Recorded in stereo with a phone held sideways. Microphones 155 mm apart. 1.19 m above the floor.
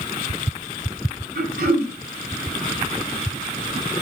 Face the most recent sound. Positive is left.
turn(degrees=-75)  # may be behind; listen again after turning